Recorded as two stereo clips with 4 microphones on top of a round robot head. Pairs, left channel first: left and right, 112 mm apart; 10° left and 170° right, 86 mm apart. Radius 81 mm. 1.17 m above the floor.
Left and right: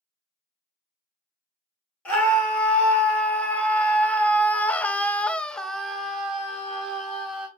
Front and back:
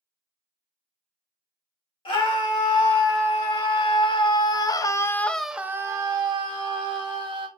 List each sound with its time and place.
2.0 s a scream: 10° left, 2 m; by 7.5 s 175° right, 1.4 m